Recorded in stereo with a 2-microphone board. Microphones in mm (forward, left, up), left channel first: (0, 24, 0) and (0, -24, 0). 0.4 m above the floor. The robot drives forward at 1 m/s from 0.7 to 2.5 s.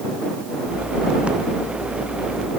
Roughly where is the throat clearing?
I don't hear throat clearing.